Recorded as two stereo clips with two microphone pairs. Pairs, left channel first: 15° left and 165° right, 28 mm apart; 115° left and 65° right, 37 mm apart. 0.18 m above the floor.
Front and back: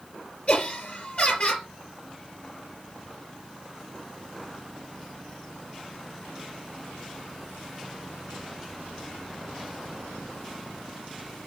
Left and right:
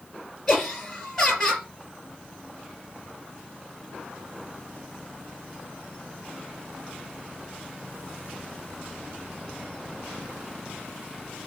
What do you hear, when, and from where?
0.5 s laughter: 40° left, 4 m